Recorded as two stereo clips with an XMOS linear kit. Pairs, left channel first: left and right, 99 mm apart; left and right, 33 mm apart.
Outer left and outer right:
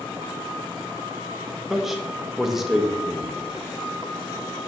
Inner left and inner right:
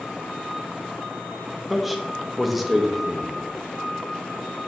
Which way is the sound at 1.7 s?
5° right (ahead or behind).